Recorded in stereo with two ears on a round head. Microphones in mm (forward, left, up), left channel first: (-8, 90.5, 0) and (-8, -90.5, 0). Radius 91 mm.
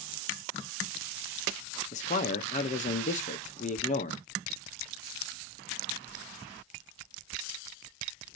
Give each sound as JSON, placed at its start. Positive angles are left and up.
{"t": 1.9, "sound": "a man speaking", "side_deg": 40, "distance_m": 0.6}